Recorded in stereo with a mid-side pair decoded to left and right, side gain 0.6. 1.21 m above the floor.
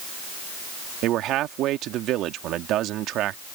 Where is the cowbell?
No cowbell in this recording.